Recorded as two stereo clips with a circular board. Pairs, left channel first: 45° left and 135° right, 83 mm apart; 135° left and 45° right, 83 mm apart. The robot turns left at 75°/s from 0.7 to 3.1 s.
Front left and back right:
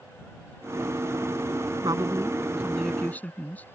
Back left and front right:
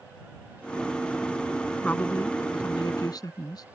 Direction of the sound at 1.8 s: 155° right.